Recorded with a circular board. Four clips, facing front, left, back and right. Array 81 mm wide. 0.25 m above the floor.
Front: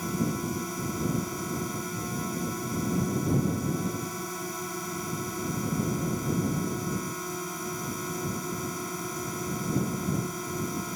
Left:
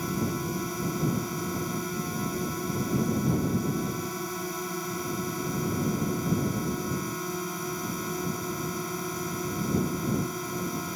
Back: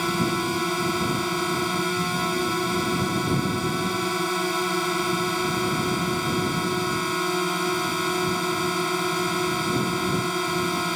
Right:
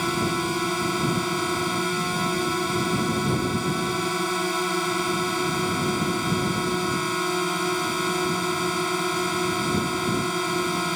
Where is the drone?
140° right.